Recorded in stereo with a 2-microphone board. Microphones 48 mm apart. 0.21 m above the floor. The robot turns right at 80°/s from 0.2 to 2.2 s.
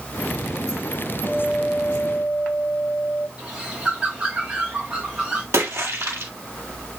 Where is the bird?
25° right (ahead or behind), 3.5 m.